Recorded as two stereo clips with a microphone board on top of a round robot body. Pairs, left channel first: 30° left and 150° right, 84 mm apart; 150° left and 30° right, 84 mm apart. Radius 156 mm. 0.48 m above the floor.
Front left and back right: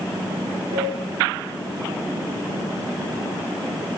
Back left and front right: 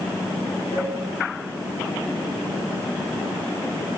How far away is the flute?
About 3.5 m.